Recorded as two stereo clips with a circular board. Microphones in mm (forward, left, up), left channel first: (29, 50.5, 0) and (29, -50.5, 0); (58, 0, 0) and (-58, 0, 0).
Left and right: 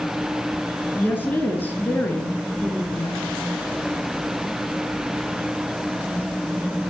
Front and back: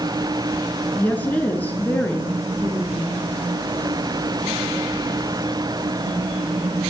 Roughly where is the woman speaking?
Ahead left.